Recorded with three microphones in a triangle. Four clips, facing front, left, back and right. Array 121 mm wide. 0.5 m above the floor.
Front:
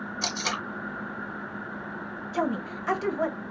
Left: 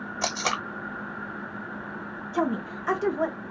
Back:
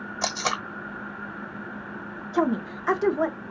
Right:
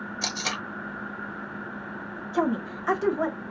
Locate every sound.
0.2 s tape being pulled: 150° left, 1.3 m
2.3 s a woman speaking: straight behind, 1.1 m